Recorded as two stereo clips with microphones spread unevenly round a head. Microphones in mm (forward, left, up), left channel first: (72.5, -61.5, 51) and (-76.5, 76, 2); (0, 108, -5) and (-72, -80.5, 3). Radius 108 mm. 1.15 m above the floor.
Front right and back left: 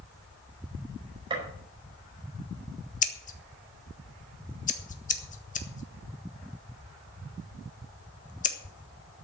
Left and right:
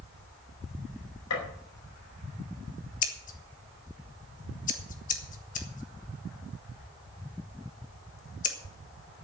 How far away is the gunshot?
About 5 m.